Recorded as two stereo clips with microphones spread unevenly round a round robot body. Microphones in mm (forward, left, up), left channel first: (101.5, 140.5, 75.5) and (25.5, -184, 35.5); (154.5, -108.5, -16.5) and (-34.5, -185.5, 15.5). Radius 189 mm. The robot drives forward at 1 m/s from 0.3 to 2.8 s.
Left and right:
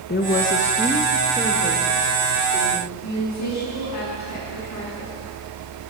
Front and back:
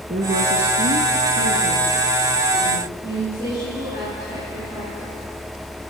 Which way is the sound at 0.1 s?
140° left.